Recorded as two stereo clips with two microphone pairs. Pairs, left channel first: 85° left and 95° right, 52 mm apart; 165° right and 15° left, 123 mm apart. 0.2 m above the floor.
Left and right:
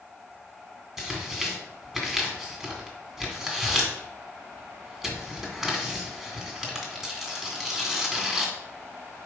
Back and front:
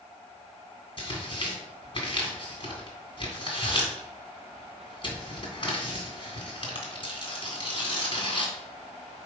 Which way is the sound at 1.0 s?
170° right.